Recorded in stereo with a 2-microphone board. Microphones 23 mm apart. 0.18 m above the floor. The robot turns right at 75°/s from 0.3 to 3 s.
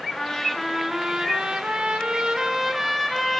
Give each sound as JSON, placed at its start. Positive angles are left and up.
{"t": 0.1, "sound": "a trumpet", "azimuth_deg": 155, "distance_m": 1.6}